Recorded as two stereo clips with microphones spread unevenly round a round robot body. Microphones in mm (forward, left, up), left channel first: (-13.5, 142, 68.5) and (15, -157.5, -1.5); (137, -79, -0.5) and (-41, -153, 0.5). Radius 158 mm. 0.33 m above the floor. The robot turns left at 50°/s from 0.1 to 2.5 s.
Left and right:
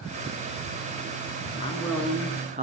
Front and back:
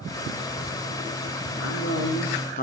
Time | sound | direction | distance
1.6 | a man speaking | 25° left | 5 m